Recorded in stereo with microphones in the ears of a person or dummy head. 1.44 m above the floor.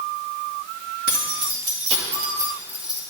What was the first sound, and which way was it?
Keys jangling, 55° right (ahead or behind).